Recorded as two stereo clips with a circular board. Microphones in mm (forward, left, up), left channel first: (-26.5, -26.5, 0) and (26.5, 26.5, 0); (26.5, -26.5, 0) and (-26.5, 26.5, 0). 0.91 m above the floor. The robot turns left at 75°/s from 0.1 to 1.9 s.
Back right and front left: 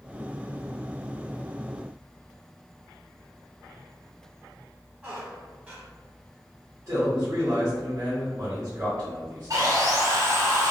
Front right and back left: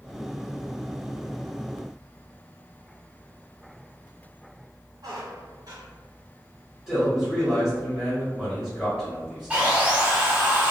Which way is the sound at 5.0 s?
115° left.